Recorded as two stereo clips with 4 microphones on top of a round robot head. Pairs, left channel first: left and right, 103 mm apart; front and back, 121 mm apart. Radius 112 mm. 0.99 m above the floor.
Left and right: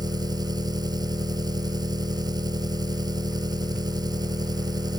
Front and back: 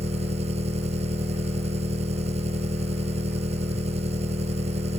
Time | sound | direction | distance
0.0 | an engine running | 135° right | ?